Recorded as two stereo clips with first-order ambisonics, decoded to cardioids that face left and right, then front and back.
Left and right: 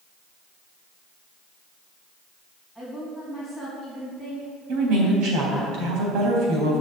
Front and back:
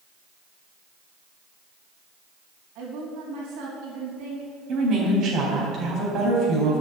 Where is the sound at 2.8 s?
165° right, 3.5 m.